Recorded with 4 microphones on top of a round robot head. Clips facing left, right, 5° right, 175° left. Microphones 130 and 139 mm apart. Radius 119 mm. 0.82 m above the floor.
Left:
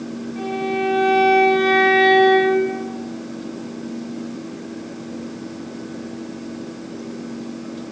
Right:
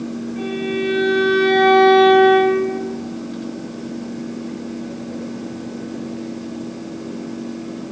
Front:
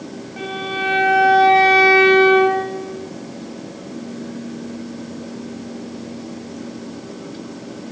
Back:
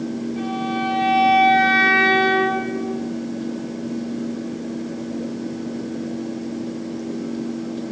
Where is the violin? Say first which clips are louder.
Left 1 dB, even; 25° left, 4.5 m.